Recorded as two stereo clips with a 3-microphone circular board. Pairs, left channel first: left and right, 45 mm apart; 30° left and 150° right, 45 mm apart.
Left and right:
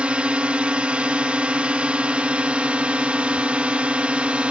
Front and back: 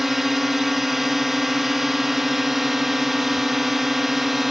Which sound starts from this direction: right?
A drone, at 0.0 s.